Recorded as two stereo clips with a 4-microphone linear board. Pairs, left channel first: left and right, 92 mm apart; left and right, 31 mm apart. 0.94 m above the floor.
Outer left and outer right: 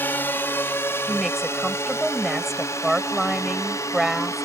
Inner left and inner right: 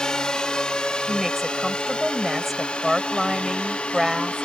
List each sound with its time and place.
0.0 s a drone: 20° left (ahead or behind); by 4.5 s 35° left (ahead or behind)
1.1 s a woman speaking: centre (ahead or behind)